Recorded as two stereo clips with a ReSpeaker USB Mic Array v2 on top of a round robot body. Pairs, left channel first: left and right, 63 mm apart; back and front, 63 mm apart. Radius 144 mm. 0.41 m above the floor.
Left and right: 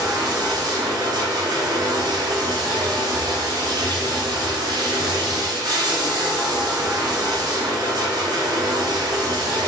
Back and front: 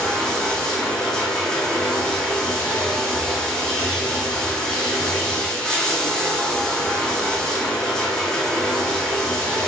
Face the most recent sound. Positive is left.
turn(degrees=-100)